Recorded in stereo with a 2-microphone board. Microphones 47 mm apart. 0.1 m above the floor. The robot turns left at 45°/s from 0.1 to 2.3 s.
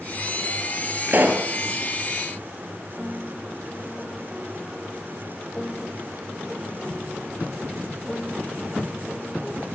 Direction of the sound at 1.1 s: 40° right (ahead or behind).